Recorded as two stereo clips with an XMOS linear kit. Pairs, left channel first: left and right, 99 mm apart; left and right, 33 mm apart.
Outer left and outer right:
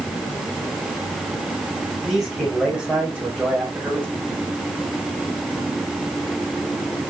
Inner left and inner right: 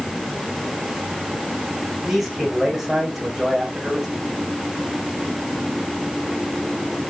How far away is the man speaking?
About 6 m.